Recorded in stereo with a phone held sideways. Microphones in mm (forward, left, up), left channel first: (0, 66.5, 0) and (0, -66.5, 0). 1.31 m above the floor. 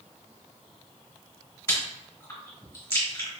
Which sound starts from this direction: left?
Chewing, at 1.7 s.